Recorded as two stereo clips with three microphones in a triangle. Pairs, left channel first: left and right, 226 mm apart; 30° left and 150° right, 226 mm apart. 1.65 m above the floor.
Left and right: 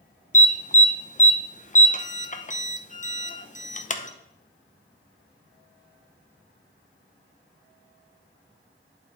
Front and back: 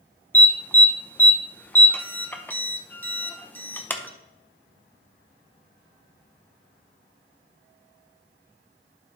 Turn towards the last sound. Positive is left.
turn(degrees=105)